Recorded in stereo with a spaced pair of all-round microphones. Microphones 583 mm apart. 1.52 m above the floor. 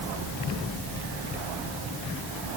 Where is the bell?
I don't hear a bell.